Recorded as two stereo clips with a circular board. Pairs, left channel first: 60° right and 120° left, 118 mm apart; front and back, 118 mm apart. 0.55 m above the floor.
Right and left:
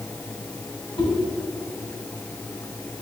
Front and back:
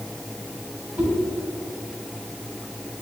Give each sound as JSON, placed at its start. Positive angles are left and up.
{"t": 1.0, "sound": "a whoosh", "azimuth_deg": -100, "distance_m": 3.5}